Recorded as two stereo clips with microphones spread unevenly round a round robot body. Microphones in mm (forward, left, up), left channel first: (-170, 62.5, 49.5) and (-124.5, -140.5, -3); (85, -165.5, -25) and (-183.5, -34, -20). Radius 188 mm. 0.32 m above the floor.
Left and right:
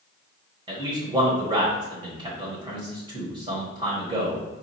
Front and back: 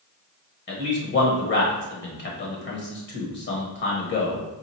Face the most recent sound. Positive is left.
turn(degrees=-45)